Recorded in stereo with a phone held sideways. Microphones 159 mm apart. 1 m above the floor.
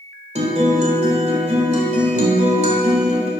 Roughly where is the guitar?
Right.